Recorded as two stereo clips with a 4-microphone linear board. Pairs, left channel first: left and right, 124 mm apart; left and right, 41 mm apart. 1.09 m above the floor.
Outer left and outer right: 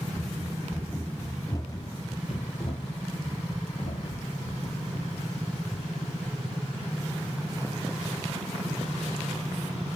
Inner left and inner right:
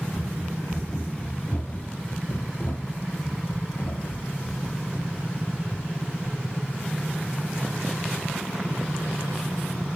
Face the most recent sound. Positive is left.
turn(degrees=75)  # may be behind; listen again after turning